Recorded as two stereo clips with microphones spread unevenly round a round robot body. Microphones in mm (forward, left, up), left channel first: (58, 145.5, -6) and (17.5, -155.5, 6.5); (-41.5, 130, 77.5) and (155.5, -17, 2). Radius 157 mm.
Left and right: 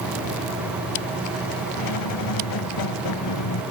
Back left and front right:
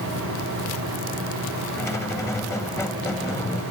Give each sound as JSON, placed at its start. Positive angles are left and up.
{"t": 1.8, "sound": "a squeak", "azimuth_deg": 60}